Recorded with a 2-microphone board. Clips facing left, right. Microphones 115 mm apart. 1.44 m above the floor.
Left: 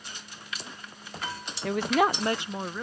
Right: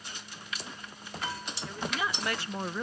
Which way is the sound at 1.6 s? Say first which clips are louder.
Left 11 dB; 85° left.